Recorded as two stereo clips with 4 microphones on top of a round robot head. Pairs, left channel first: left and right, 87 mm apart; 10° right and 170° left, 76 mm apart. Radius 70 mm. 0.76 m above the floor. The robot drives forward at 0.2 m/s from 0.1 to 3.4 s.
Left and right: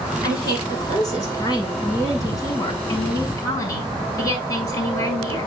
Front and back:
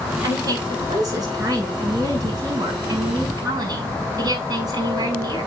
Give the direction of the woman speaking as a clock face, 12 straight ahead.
8 o'clock.